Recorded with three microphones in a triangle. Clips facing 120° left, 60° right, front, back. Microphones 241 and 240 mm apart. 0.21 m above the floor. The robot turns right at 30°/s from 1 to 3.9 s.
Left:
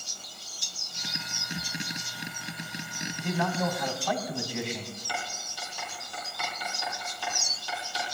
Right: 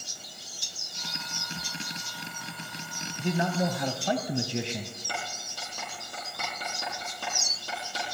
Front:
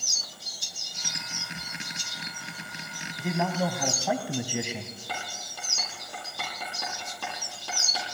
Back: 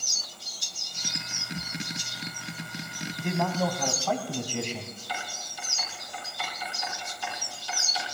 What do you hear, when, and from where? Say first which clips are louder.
3.2 s a man speaking: right 2 dB, even; 85° right, 1.1 m; by 5.0 s 65° right, 1.1 m
5.1 s writing: even, even; 20° right, 7 m